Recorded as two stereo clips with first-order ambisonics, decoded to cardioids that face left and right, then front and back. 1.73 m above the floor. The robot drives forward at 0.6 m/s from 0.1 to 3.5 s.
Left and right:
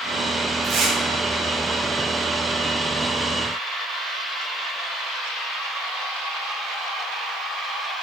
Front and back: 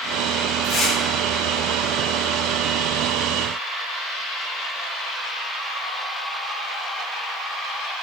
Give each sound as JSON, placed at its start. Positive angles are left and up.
{"t": 0.6, "sound": "tearing paper", "azimuth_deg": -50, "distance_m": 1.2}